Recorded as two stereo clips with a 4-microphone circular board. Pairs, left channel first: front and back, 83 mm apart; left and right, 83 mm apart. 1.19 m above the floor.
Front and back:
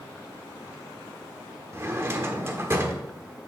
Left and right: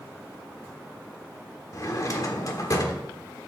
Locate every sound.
1.7 s a drawer: 125° left, 1.2 m